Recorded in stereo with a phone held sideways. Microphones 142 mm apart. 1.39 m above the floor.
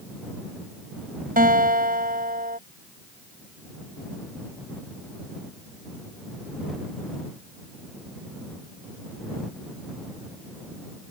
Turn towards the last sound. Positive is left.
turn(degrees=-85)